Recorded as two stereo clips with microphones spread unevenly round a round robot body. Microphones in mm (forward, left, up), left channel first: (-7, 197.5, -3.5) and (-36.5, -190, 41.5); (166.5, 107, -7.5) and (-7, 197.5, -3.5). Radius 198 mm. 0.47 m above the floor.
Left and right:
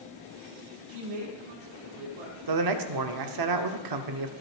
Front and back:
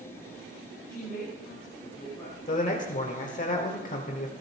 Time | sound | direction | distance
0.9 | a woman speaking | 110° right | 5 m
2.5 | a man speaking | 70° right | 1.0 m